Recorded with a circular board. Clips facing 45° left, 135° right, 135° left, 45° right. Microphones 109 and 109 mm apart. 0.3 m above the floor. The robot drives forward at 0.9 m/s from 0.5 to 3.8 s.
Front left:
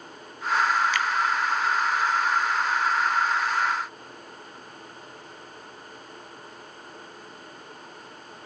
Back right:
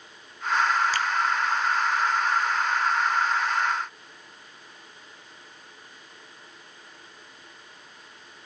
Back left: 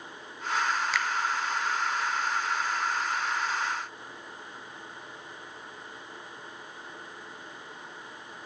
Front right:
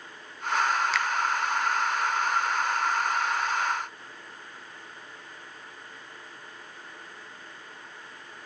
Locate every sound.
0.9 s a finger snap: 135° right, 0.7 m; by 1.1 s 145° right, 0.8 m